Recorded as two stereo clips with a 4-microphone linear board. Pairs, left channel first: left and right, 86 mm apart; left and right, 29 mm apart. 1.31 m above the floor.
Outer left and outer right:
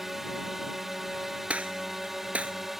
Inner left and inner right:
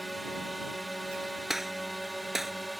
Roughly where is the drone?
Centre.